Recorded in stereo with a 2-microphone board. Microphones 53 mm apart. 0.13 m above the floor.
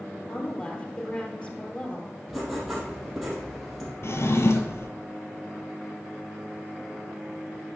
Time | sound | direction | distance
0.3 | a woman speaking | 25° left (ahead or behind) | 2.5 m
2.3 | writing | 5° right (ahead or behind) | 4 m
4.0 | a drawer | 60° left (ahead or behind) | 1.1 m